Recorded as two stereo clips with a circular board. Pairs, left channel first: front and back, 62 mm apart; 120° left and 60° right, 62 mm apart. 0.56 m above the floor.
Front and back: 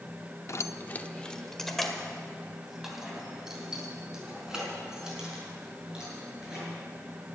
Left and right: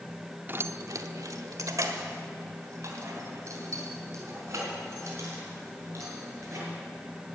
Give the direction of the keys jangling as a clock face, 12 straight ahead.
1 o'clock.